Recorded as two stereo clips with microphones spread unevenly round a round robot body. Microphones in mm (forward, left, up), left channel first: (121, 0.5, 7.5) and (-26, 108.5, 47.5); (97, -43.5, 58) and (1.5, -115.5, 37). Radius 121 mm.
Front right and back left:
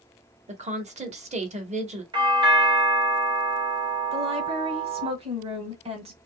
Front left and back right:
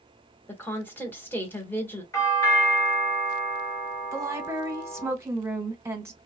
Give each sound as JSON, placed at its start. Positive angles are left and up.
{"t": 0.5, "sound": "a woman speaking", "azimuth_deg": 110, "distance_m": 1.2}
{"t": 2.1, "sound": "a doorbell", "azimuth_deg": 85, "distance_m": 1.4}
{"t": 4.1, "sound": "a woman speaking", "azimuth_deg": -160, "distance_m": 1.0}